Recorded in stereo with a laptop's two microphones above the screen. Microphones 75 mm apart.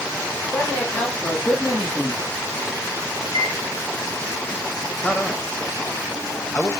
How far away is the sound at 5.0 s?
About 1.4 m.